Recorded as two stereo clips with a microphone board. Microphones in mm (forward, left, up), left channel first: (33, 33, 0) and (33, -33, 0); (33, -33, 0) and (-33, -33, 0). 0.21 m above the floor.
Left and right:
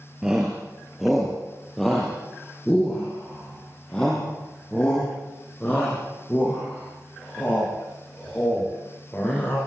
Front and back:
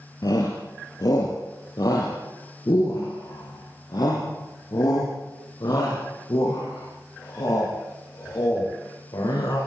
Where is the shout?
10° right, 4.5 m; by 9.6 s 20° left, 14 m.